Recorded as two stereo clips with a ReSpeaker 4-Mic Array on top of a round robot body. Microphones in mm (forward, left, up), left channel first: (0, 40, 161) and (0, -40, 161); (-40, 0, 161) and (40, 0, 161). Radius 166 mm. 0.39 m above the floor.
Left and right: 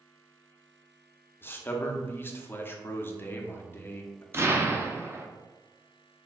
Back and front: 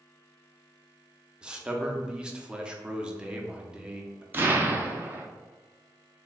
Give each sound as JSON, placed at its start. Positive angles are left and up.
{"t": 1.4, "sound": "a man speaking", "azimuth_deg": 65, "distance_m": 0.8}
{"t": 4.3, "sound": "an explosion", "azimuth_deg": -50, "distance_m": 0.8}